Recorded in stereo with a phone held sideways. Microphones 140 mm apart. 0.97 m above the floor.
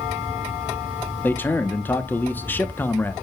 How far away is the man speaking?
About 0.8 m.